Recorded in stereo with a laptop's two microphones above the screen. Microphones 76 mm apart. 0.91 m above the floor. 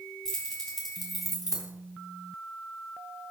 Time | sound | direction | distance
0.2 | keys jangling | 10° left (ahead or behind) | 2.5 m